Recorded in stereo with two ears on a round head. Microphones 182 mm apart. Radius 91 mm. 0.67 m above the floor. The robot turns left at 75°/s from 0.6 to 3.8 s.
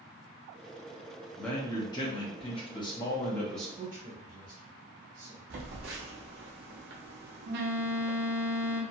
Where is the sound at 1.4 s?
5° left (ahead or behind), 0.6 m; by 3.7 s centre (ahead or behind), 0.6 m.